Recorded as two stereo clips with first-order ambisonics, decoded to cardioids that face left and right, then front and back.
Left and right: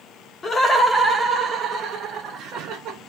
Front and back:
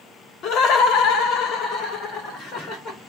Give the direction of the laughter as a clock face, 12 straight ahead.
11 o'clock.